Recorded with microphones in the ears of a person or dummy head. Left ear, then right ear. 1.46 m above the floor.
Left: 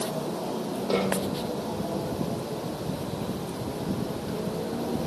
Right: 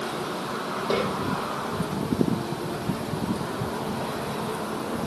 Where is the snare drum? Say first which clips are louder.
Right 1 dB; 10° right (ahead or behind), 9 m.